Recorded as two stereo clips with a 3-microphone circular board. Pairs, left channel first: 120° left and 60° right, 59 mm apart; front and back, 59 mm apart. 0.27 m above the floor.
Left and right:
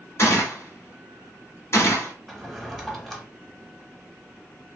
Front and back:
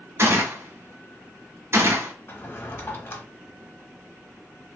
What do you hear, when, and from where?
0.2 s a gunshot: 150° left, 1.2 m
2.3 s a drawer: 30° left, 0.7 m